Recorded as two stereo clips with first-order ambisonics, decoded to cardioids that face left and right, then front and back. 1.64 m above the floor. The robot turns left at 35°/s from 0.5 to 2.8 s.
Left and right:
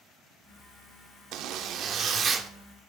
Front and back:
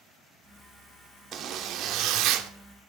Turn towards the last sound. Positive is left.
turn(degrees=-175)